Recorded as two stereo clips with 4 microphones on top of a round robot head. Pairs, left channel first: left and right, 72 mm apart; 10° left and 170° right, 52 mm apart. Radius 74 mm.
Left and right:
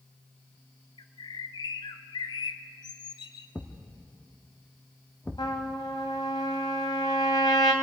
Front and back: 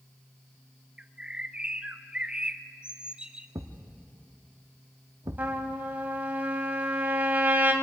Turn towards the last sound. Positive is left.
turn(degrees=135)